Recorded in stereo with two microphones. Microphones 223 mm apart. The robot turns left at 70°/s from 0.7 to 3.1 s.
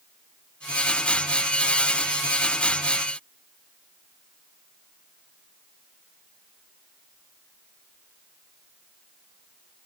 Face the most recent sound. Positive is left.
No sound to turn to.